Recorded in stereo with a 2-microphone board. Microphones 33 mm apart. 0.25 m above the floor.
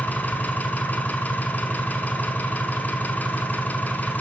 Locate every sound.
0.0 s an engine running: 70° left (ahead or behind), 0.8 m